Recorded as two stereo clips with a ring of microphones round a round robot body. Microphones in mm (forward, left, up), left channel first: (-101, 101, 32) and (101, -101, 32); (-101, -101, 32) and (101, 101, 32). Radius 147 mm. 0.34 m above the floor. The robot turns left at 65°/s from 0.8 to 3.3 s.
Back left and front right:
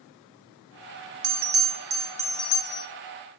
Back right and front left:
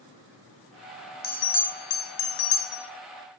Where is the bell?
75° right, 0.5 m; by 2.9 s straight behind, 0.5 m.